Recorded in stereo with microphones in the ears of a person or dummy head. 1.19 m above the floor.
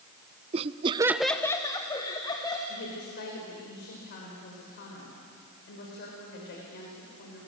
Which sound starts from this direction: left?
A woman speaking, at 2.7 s.